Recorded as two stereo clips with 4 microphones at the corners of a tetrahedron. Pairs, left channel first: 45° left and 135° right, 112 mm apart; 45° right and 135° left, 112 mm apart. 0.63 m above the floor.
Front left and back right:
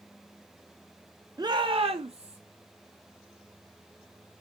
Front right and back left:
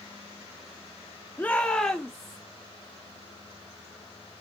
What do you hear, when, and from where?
1.4 s a shout: 105° right, 0.6 m; by 2.4 s 135° right, 1.1 m